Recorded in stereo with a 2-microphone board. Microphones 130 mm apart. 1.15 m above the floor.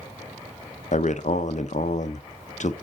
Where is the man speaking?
65° left (ahead or behind), 0.7 m.